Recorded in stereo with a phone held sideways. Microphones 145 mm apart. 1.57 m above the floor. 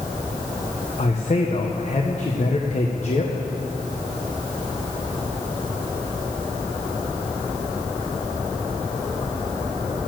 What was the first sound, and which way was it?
A man speaking, 50° left (ahead or behind).